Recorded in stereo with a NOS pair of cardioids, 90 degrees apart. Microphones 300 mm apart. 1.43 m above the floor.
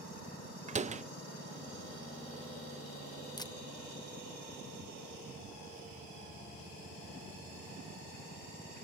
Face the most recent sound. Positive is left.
turn(degrees=15)